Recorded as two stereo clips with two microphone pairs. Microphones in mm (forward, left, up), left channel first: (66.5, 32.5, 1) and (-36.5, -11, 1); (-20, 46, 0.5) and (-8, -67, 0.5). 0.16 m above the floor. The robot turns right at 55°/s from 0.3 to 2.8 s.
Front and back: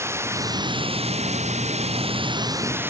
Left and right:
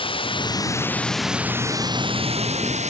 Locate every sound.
0.0 s running water: 135° left; by 2.9 s 85° right